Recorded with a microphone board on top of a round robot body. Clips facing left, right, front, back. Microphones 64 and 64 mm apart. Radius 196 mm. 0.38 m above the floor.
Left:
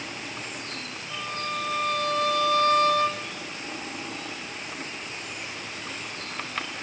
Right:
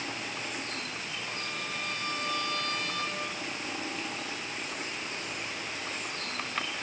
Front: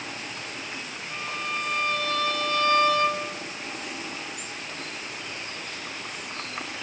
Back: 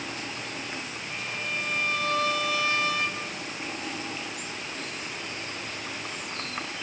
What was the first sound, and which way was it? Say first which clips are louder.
A violin: left 10 dB, front 3 dB; 100° left.